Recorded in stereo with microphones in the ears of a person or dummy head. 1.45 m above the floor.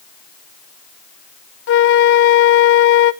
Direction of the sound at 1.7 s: 60° left (ahead or behind).